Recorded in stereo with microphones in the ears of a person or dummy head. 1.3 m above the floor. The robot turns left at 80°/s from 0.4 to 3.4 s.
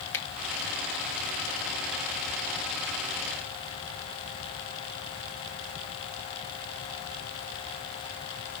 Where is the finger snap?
15° left (ahead or behind), 0.9 m.